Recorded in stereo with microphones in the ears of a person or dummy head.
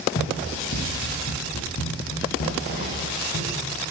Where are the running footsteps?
60° left (ahead or behind), 3 m; by 3.8 s 70° left (ahead or behind), 4.5 m.